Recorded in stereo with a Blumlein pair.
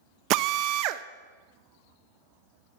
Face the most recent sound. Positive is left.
turn(degrees=-40)